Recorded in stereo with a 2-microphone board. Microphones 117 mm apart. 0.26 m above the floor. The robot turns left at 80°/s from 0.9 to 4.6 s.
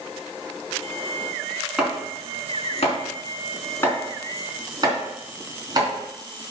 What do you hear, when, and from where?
1.8 s chopping: 5° right (ahead or behind), 3 m; by 5.9 s 35° right (ahead or behind), 3 m